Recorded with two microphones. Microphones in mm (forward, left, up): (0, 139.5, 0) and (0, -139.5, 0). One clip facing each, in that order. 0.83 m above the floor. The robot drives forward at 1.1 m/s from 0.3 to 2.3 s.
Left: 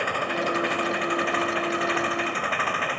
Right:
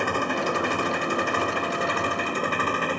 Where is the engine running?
55° right (ahead or behind); by 3.0 s 50° right (ahead or behind).